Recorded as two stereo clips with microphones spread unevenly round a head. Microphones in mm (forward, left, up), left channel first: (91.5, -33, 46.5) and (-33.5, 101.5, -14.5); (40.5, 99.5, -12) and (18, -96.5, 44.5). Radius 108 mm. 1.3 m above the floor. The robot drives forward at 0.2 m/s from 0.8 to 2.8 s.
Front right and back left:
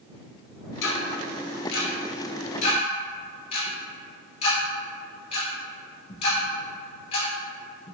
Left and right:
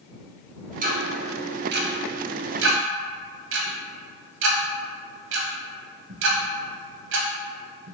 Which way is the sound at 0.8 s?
55° right.